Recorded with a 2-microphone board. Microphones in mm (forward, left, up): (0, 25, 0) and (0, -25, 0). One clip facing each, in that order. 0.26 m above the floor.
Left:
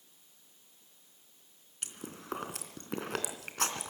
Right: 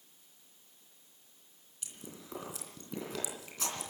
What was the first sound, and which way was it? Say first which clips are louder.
Chewing: left 4 dB; 60° left (ahead or behind).